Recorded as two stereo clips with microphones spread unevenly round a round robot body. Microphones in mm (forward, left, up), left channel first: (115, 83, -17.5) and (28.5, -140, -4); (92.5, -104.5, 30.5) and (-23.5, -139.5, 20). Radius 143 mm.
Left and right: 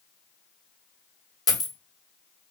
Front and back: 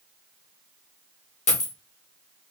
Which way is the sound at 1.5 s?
5° right.